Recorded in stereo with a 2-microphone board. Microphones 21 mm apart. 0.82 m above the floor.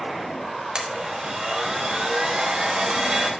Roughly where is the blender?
Right.